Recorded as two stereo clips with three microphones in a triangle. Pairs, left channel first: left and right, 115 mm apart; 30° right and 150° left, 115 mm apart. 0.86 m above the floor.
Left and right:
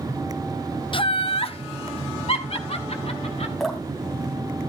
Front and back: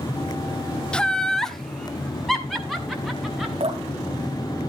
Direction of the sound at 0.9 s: 50° left.